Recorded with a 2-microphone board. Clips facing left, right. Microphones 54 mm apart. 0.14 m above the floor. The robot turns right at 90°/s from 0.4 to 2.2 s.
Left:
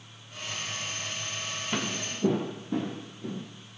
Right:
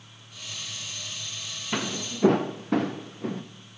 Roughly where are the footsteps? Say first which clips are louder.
Right 3 dB; centre.